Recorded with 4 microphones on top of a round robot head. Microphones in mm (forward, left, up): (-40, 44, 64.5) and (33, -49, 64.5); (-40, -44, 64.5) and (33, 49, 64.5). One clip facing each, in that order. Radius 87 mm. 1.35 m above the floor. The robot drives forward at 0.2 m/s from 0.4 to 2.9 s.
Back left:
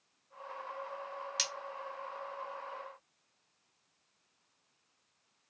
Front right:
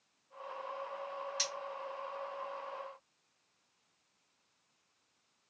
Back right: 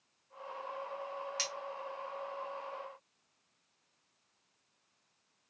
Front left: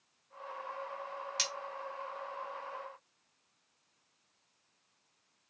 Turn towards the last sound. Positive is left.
turn(degrees=145)